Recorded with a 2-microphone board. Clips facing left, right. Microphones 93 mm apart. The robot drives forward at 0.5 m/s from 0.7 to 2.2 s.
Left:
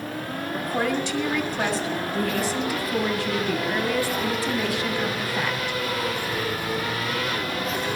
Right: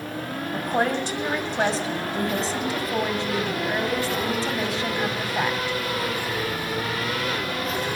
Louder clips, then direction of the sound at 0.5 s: Right 2 dB; 40° right (ahead or behind).